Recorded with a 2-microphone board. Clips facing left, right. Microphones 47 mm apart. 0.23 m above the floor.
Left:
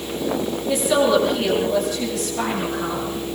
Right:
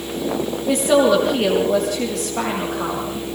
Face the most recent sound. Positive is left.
turn(degrees=-80)